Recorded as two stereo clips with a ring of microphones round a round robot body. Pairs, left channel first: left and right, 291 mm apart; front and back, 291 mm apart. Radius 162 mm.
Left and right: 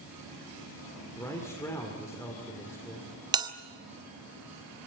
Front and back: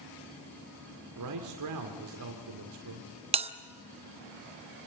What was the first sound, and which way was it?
A man speaking, 170° left.